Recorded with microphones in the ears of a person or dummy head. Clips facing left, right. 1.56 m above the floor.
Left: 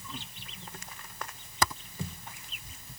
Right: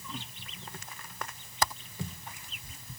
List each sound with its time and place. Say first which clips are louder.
1.6 s typing on a keyboard: left 1 dB; 75° left (ahead or behind)